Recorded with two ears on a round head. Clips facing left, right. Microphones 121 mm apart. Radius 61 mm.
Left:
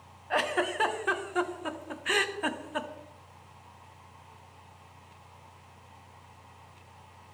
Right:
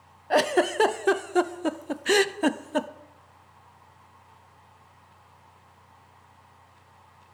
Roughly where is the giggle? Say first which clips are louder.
Right 7 dB; right.